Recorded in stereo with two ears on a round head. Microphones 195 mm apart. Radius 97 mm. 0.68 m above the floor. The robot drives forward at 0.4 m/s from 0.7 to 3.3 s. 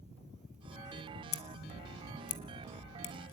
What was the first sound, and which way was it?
Scissors, 70° left (ahead or behind).